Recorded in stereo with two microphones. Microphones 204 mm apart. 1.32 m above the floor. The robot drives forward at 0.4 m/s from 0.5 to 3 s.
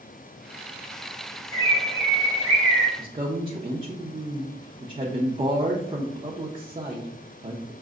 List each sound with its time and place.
1.5 s a bird: 70° left (ahead or behind), 2 m; by 2.9 s 85° left, 2 m
3.0 s a woman speaking: 25° right (ahead or behind), 0.6 m